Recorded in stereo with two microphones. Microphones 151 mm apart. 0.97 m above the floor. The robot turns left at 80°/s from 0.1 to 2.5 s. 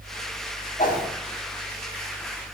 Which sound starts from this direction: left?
A whoosh, at 0.8 s.